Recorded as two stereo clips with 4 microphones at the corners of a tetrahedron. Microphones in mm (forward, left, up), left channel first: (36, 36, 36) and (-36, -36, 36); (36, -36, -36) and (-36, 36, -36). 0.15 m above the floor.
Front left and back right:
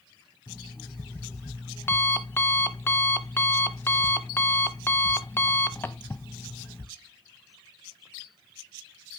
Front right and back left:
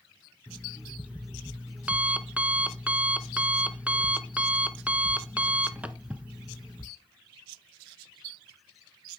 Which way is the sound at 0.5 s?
80° left.